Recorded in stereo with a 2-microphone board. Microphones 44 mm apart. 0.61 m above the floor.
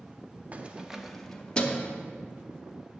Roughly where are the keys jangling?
Right.